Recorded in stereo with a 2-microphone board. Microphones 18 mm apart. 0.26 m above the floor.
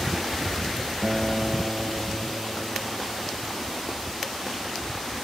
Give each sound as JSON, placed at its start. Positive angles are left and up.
{"t": 1.0, "sound": "a guitar", "side_deg": 10}